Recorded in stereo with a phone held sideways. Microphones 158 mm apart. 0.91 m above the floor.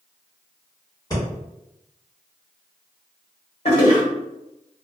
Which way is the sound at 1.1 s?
25° left (ahead or behind).